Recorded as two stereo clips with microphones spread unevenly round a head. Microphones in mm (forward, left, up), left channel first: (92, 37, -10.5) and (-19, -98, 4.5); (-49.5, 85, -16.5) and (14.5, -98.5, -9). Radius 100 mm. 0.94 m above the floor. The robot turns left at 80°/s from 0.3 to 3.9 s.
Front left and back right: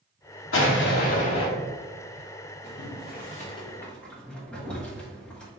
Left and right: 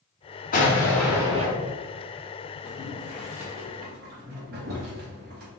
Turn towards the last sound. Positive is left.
turn(degrees=-30)